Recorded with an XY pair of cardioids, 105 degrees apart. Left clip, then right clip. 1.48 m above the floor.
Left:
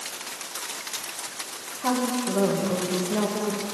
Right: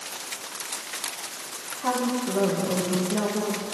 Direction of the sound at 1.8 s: 10° left.